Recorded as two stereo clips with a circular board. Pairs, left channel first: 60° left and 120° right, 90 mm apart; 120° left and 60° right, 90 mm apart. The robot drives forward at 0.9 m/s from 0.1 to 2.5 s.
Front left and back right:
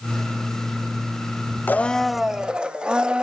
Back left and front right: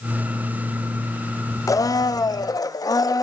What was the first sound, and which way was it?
A blender, 115° left.